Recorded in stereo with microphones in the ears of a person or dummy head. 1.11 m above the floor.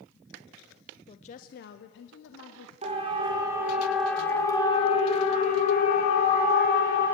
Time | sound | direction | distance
1.1 | a woman speaking | 30° left (ahead or behind) | 0.6 m
2.8 | a siren | 40° right (ahead or behind) | 2.5 m